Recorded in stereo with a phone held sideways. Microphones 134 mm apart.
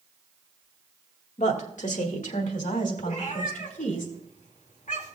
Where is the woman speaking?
60° left (ahead or behind), 1.8 m; by 4.0 s 80° left, 3 m.